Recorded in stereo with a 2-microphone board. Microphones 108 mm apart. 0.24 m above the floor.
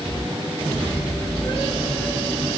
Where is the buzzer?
No buzzer in this recording.